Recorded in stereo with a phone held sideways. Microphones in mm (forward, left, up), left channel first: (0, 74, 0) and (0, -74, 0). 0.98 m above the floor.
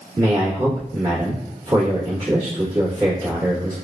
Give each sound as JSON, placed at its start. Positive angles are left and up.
{"t": 0.2, "sound": "a man speaking", "side_deg": -30, "distance_m": 1.7}